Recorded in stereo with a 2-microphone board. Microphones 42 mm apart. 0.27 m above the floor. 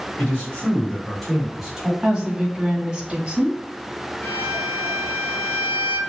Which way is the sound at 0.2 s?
40° left (ahead or behind).